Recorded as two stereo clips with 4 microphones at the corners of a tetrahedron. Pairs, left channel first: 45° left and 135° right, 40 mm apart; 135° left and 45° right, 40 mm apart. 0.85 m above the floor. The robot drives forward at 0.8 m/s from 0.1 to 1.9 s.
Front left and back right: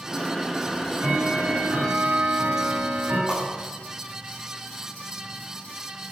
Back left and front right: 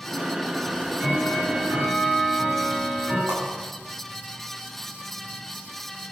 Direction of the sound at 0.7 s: 115° right.